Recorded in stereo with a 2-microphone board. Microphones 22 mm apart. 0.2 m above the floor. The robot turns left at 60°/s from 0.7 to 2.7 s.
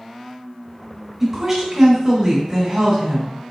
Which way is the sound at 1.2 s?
10° right (ahead or behind).